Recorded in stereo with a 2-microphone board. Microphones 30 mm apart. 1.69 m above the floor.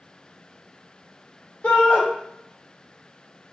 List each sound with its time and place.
1.6 s a shout: 65° left (ahead or behind), 1.6 m